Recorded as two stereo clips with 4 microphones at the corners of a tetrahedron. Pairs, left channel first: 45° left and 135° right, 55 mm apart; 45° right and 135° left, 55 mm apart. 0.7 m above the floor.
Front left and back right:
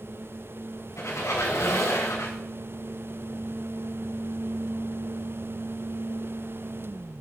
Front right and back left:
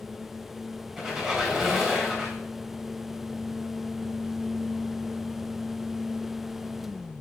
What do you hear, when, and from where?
1.0 s a squeak: 50° left, 3 m